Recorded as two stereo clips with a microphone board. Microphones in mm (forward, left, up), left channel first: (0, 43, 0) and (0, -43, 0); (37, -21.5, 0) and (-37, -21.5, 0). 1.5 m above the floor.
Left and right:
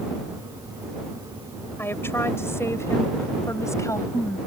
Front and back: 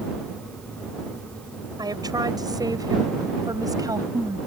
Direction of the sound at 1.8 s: 155° left.